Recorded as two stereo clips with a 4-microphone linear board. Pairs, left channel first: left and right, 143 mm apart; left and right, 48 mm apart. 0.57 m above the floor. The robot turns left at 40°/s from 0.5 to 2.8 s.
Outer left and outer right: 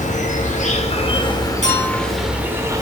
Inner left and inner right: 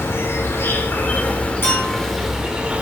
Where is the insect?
65° left, 1.0 m; by 2.8 s 25° right, 1.0 m.